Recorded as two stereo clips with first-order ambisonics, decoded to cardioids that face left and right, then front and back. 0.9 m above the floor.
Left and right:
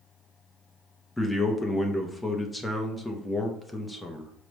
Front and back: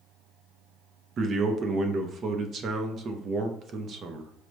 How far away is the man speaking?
About 0.5 m.